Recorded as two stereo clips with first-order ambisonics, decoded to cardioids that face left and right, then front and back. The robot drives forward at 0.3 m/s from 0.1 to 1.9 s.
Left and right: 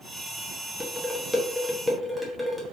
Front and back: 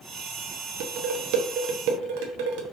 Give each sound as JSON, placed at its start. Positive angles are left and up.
{"t": 0.8, "sound": "dishes clattering", "azimuth_deg": -175, "distance_m": 0.6}